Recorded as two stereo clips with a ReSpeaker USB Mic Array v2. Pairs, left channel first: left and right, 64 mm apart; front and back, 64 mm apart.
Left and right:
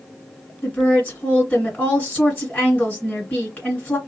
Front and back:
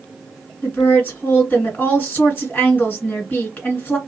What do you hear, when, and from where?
0.6 s a woman speaking: 40° left, 1.9 m